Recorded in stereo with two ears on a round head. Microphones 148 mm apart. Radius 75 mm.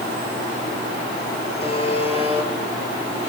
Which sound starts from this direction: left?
A buzzer, at 1.6 s.